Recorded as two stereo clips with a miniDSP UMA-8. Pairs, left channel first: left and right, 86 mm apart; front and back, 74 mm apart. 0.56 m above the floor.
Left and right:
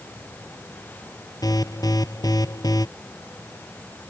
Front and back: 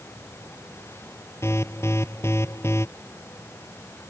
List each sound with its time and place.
1.4 s an alarm: 50° left